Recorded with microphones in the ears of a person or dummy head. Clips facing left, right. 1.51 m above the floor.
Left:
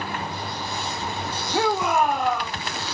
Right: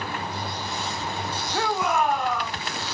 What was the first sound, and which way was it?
A shout, 20° left (ahead or behind).